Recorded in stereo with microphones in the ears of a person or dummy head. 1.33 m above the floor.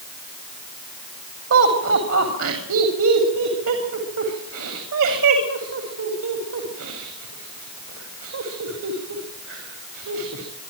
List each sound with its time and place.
1.5 s laughter: 80° right, 3.5 m